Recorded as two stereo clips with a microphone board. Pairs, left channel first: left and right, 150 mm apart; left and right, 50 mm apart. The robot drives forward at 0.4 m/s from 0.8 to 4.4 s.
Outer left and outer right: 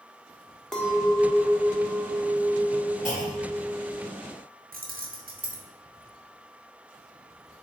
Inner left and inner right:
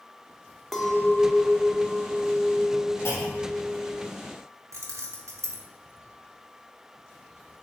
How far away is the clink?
About 0.5 m.